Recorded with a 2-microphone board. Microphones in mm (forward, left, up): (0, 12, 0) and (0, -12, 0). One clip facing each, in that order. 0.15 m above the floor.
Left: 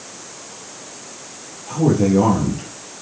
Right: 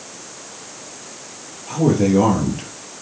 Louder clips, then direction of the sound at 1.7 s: Even; 20° right (ahead or behind).